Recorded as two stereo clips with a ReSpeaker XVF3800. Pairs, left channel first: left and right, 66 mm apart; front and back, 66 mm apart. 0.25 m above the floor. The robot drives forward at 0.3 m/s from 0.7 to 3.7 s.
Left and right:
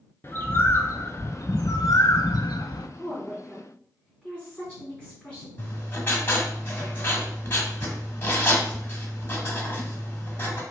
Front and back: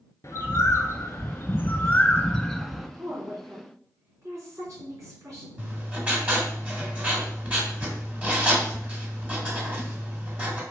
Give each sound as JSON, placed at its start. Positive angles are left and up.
{"t": 0.2, "sound": "a bird", "azimuth_deg": 35, "distance_m": 0.8}
{"t": 3.0, "sound": "a woman speaking", "azimuth_deg": 160, "distance_m": 2.5}
{"t": 5.6, "sound": "writing", "azimuth_deg": 130, "distance_m": 1.6}